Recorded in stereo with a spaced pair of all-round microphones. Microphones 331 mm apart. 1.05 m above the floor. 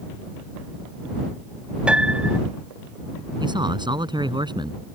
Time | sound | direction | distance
1.9 | a piano | 5° right (ahead or behind) | ?
3.4 | a man speaking | 15° right (ahead or behind) | ?